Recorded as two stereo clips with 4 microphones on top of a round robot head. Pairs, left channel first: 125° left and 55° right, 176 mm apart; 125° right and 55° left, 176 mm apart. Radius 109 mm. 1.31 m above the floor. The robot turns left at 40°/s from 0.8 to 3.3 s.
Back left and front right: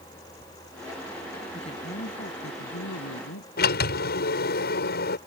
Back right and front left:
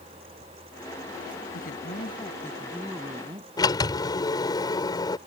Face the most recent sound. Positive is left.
turn(degrees=165)